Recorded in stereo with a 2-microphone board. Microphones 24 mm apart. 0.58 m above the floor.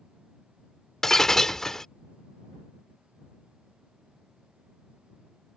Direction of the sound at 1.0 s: 20° left (ahead or behind).